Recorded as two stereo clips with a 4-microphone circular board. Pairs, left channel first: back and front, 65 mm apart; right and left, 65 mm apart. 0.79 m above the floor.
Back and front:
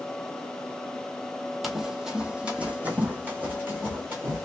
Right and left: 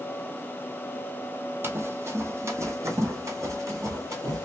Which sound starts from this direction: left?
Running footsteps, at 1.6 s.